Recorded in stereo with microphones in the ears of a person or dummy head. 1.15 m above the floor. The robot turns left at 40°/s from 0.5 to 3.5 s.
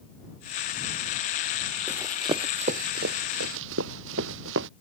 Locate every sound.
1.9 s running footsteps: 5° right (ahead or behind); by 4.7 s 65° right (ahead or behind)